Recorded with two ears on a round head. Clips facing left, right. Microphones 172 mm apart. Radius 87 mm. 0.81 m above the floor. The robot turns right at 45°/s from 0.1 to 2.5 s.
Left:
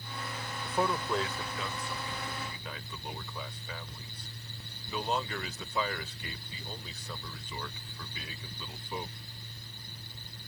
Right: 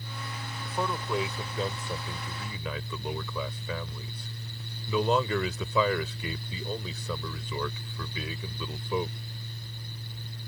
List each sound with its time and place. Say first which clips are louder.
0.7 s a man speaking: left 1 dB; 165° left; by 9.2 s 110° right